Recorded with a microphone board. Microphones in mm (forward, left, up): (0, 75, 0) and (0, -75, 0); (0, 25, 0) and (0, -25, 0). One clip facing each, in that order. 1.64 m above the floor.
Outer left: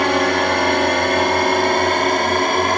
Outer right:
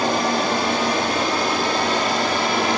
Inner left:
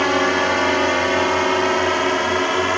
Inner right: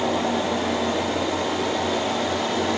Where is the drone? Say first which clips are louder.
Outer left 3 dB, inner left 6 dB; 70° left (ahead or behind); by 2.8 s 55° left (ahead or behind).